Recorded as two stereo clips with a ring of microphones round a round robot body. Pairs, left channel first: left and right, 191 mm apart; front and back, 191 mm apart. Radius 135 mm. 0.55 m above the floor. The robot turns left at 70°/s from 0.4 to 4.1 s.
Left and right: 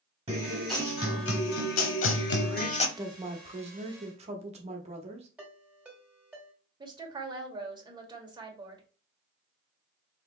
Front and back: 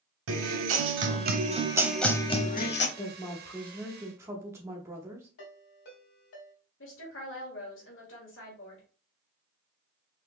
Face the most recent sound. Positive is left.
turn(degrees=-25)